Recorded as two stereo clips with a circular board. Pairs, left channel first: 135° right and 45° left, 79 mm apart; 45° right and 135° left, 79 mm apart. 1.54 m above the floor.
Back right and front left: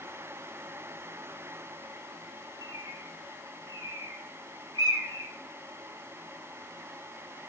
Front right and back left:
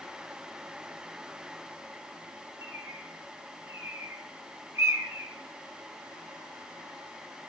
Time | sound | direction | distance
2.6 | a bird | 80° left | 1.9 m